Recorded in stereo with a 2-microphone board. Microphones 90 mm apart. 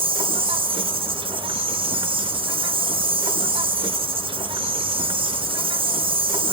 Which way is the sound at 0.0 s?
80° right.